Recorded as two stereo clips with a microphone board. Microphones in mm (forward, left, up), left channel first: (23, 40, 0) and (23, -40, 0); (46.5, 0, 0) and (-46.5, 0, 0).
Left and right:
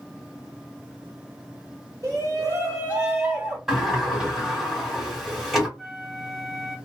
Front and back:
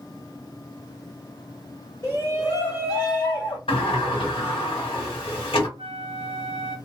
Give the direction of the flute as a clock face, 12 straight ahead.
6 o'clock.